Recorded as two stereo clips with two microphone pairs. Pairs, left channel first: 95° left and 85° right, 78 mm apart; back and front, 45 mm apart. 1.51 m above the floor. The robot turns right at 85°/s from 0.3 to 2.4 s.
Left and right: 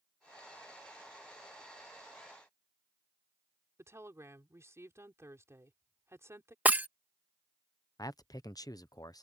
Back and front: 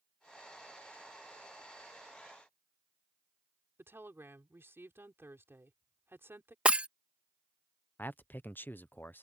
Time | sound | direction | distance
3.8 | a woman speaking | 30° right | ?
6.7 | breaking glass | 30° right | ?
8.0 | a man speaking | 130° left | ?